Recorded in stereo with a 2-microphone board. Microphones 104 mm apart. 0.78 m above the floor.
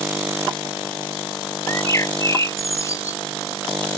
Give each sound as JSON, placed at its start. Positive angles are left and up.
{"t": 1.7, "sound": "a bird", "side_deg": 30}